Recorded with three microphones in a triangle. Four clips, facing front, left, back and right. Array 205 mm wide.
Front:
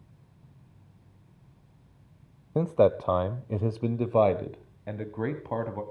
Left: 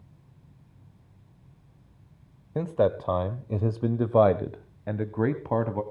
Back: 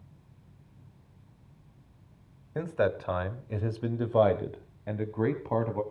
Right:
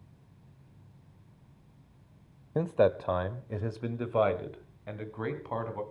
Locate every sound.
2.5 s a man speaking: 5° right, 1.2 m; by 5.8 s 95° left, 2 m